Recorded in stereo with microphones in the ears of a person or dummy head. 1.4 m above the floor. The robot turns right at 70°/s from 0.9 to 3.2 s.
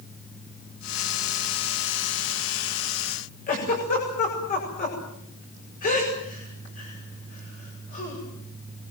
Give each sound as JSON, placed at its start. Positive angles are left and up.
{"t": 3.5, "sound": "a giggle", "side_deg": 40, "distance_m": 8.0}